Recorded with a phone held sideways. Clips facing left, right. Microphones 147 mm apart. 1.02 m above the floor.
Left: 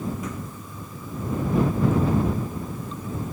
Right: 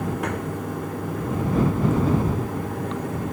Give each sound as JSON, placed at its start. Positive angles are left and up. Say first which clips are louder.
{"t": 0.0, "sound": "running water", "louder": "right 5 dB", "side_deg": -80}